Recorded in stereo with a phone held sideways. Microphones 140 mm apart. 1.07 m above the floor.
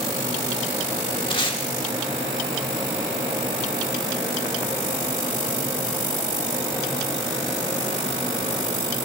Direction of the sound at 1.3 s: 35° left (ahead or behind).